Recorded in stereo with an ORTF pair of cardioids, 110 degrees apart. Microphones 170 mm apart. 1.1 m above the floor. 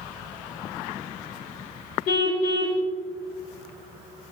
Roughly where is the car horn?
Left.